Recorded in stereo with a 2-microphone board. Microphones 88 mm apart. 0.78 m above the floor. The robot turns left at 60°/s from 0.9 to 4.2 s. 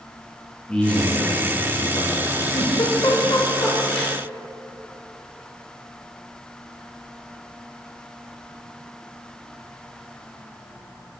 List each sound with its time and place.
0.7 s a man speaking: 170° left, 1.3 m; by 2.4 s 75° left, 1.3 m
2.5 s a giggle: 70° left (ahead or behind), 0.8 m; by 4.2 s centre (ahead or behind), 0.8 m